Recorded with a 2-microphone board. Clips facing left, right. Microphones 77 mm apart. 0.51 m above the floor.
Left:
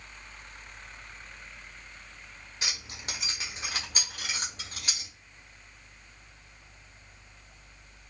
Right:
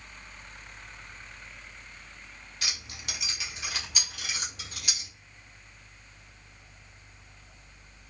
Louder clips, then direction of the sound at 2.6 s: Left 1 dB; 25° left (ahead or behind).